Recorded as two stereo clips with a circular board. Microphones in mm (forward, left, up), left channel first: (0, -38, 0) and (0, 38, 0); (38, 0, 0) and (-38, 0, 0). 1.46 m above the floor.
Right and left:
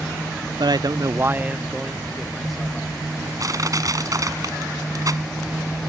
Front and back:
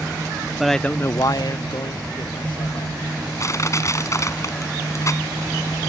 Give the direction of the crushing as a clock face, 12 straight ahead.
10 o'clock.